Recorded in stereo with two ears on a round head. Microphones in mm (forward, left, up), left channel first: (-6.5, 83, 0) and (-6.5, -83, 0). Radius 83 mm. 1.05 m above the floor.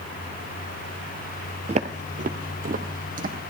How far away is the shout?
No shout in this recording.